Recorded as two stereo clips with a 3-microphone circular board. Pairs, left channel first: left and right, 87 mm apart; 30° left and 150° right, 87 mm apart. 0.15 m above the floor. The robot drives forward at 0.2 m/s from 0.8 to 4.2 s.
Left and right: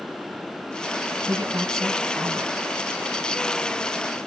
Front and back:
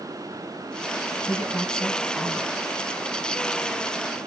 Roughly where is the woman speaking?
Ahead right.